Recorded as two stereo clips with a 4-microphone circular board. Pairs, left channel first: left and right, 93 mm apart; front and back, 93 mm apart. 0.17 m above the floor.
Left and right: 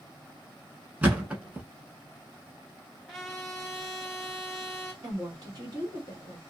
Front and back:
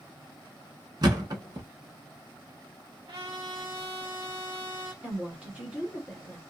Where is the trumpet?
Straight behind, 1.2 m.